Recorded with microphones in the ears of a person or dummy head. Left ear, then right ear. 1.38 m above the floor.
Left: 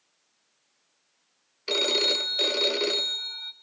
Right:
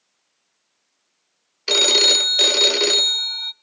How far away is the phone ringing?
About 0.7 m.